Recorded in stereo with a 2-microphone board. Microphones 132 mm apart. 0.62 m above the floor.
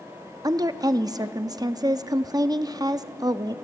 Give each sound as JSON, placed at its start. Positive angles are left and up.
{"t": 0.4, "sound": "a woman speaking", "side_deg": -30, "distance_m": 0.6}